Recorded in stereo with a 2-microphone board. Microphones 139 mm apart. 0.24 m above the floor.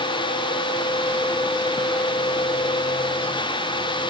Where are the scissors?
I don't hear scissors.